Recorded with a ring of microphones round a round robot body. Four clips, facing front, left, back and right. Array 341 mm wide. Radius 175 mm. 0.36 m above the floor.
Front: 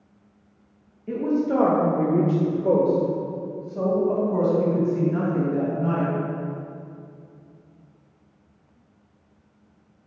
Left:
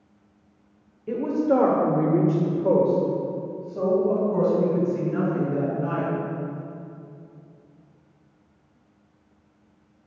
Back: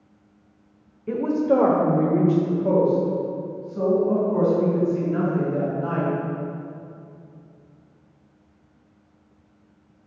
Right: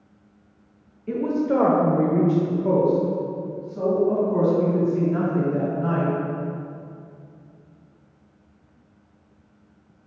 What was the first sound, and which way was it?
A woman speaking, 165° left.